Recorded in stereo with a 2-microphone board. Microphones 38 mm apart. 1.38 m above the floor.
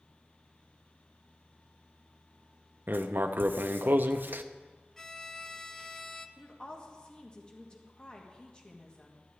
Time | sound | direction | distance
2.9 | writing | 60° right (ahead or behind) | 0.6 m
5.0 | a violin | 15° left (ahead or behind) | 0.7 m
6.4 | a woman speaking | 25° left (ahead or behind) | 1.9 m